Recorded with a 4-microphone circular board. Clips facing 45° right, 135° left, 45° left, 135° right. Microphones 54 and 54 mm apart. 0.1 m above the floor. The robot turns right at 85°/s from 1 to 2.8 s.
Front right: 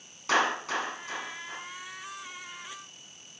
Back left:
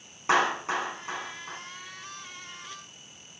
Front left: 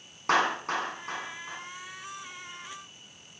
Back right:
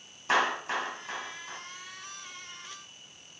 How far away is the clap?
About 5 m.